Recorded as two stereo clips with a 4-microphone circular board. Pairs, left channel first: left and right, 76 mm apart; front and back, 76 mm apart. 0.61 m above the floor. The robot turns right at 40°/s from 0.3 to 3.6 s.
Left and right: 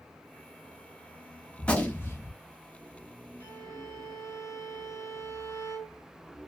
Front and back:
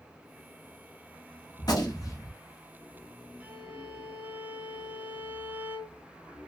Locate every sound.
1.6 s a gunshot: 15° left, 0.7 m; by 2.3 s 40° left, 0.7 m
3.4 s a violin: 110° left, 1.8 m; by 6.0 s 115° left, 1.8 m